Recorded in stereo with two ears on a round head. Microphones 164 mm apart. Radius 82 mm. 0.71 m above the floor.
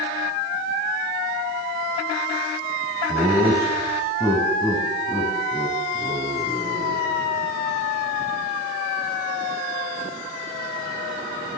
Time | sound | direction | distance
3.1 | laughter | centre (ahead or behind) | 4.5 m